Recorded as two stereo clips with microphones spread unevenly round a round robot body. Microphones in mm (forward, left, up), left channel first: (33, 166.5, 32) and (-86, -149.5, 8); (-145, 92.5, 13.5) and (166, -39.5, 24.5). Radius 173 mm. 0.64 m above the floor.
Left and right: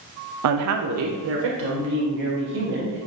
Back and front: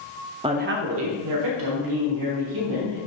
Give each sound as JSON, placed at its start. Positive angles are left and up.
{"t": 0.4, "sound": "a woman speaking", "azimuth_deg": -100, "distance_m": 0.7}